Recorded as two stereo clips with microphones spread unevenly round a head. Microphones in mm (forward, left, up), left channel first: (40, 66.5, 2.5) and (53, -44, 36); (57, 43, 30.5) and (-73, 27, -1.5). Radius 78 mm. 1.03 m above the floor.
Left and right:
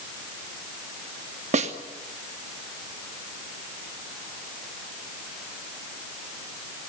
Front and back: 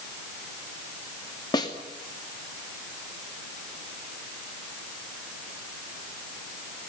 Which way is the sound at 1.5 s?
60° right.